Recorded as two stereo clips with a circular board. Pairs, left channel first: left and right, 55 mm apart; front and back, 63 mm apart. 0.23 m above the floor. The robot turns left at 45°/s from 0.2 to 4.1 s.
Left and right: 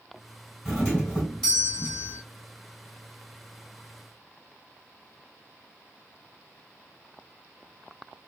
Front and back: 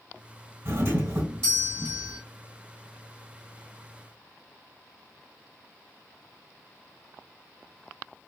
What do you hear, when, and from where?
0.7 s a doorbell: 175° left, 3 m; by 2.2 s 105° left, 3 m